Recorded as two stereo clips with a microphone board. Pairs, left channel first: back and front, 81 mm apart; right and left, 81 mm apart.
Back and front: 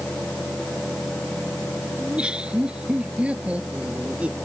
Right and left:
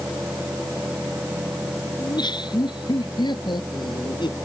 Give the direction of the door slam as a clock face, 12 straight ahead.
No door slam in this recording.